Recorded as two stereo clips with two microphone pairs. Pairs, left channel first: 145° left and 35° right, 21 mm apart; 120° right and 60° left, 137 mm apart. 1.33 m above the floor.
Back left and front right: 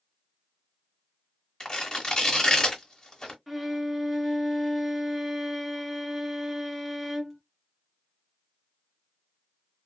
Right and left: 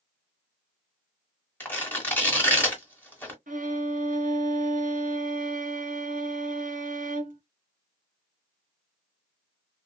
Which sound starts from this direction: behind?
Tearing paper, at 1.6 s.